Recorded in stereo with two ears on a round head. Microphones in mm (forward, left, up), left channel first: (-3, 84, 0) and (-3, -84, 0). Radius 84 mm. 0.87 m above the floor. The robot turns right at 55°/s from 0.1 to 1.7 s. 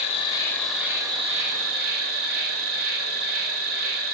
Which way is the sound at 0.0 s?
145° left.